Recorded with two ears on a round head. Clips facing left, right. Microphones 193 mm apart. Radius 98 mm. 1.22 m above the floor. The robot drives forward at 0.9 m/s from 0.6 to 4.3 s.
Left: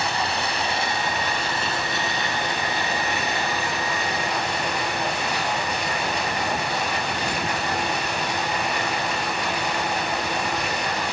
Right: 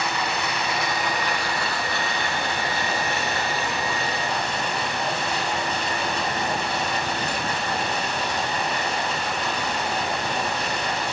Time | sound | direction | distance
0.0 | running water | 30° left (ahead or behind) | 2 m